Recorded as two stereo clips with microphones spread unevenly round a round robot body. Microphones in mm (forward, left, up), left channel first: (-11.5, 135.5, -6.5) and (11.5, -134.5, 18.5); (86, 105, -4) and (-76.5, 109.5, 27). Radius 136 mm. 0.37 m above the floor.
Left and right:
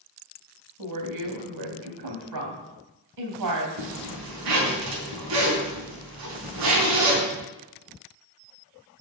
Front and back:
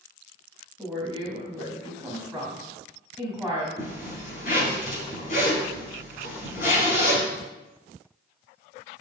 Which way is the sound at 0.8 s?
90° right.